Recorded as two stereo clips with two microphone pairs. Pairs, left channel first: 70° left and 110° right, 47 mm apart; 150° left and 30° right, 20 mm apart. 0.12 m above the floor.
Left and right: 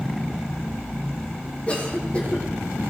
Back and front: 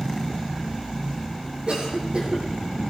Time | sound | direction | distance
1.7 | a cough | 5° left | 6.5 m